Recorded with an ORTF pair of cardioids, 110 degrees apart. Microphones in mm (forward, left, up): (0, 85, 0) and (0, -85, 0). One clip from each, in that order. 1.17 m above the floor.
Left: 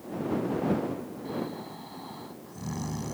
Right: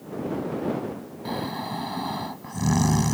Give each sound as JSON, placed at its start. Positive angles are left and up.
{"t": 1.2, "sound": "snoring", "azimuth_deg": -70}